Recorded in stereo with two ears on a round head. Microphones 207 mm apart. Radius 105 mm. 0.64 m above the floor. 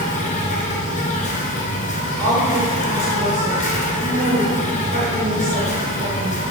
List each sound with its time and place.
0.0 s an insect: 35° left (ahead or behind), 1.4 m
2.2 s a woman speaking: 55° right (ahead or behind), 2 m